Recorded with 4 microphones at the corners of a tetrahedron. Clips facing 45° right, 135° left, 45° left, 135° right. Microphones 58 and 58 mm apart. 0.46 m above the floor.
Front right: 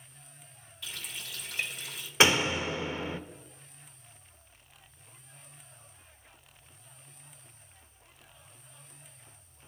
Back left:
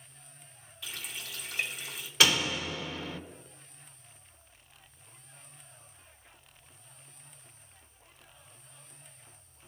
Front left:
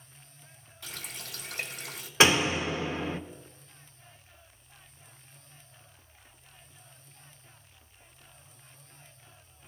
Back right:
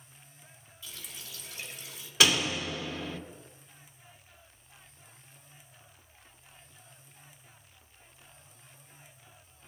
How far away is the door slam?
About 0.8 m.